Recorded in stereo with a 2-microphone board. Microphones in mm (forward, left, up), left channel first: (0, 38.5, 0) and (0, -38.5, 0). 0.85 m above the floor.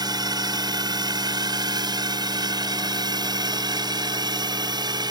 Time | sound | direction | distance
0.0 | a drone | 70° right (ahead or behind) | ?